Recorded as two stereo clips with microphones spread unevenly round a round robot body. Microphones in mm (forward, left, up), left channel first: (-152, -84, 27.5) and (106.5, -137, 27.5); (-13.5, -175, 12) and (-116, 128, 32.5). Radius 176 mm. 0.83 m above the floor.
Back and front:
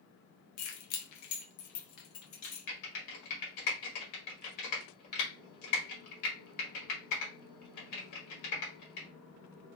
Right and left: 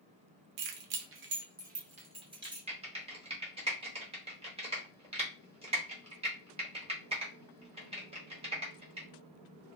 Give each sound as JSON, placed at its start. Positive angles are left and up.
{"t": 0.6, "sound": "keys jangling", "azimuth_deg": 135, "distance_m": 0.6}
{"t": 2.7, "sound": "typing on a keyboard", "azimuth_deg": 180, "distance_m": 1.4}